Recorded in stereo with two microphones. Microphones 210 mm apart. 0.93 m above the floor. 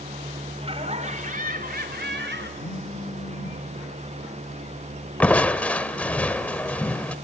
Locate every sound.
0.6 s laughter: 25° right (ahead or behind), 3.5 m; by 2.5 s 60° right (ahead or behind), 3.5 m
2.6 s a phone buzzing: 75° left (ahead or behind), 3.5 m
5.2 s crushing: 5° left (ahead or behind), 0.8 m